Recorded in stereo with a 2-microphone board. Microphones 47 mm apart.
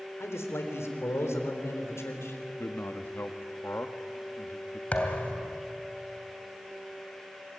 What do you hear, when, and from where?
0.2 s a man speaking: 75° left (ahead or behind), 3.5 m
2.6 s a man speaking: 55° left (ahead or behind), 1.5 m
4.9 s a thud: 35° left (ahead or behind), 2.5 m